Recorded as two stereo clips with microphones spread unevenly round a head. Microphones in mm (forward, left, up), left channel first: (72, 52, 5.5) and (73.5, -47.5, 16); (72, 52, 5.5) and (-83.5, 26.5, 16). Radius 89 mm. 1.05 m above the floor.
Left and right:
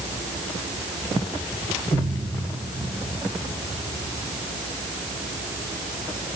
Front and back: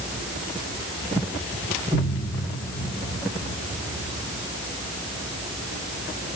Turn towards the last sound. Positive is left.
No sound to turn to.